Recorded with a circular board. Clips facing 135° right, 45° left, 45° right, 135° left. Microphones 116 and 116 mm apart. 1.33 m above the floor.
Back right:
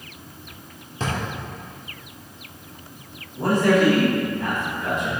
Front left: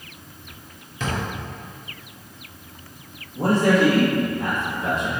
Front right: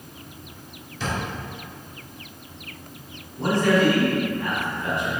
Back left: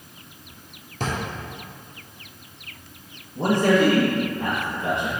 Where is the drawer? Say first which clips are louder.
Even, back left 1 dB; 170° left, 1.5 m.